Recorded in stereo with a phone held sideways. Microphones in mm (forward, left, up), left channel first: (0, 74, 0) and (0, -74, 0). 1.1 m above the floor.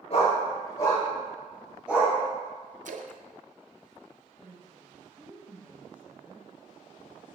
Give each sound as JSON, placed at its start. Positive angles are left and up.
{"t": 0.1, "sound": "a dog barking", "side_deg": 45, "distance_m": 2.0}
{"t": 2.9, "sound": "a splash", "side_deg": -65, "distance_m": 0.5}
{"t": 4.4, "sound": "a woman speaking", "side_deg": -10, "distance_m": 1.3}